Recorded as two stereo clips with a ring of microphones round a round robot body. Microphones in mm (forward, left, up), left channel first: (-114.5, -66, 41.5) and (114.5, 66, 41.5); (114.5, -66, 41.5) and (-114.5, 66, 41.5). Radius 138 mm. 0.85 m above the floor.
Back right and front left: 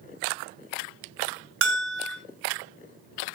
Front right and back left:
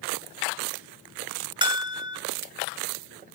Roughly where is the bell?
Left.